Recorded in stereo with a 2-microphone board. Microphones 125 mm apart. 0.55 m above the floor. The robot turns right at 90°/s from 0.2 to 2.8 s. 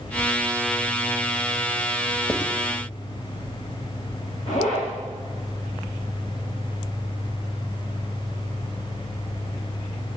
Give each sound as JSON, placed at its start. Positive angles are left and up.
{"t": 2.3, "sound": "writing", "side_deg": 10, "distance_m": 1.5}
{"t": 4.5, "sound": "a zipper", "side_deg": 50, "distance_m": 9.0}